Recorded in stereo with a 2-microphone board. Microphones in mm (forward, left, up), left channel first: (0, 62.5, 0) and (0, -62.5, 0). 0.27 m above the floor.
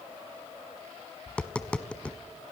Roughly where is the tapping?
Centre.